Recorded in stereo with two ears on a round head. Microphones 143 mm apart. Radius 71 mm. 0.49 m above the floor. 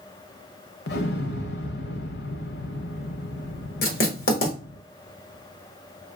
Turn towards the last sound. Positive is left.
turn(degrees=65)  # may be behind; listen again after turning